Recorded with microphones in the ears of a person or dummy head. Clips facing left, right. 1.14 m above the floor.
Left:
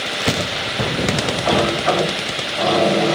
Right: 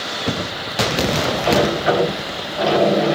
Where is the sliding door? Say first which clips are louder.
Right 1 dB; 20° right (ahead or behind), 1.8 m.